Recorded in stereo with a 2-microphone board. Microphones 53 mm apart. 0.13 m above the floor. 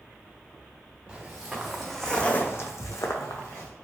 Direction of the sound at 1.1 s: 15° right (ahead or behind).